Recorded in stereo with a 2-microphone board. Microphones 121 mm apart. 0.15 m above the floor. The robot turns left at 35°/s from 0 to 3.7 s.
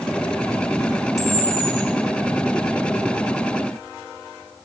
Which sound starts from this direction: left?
A camera shutter, at 1.2 s.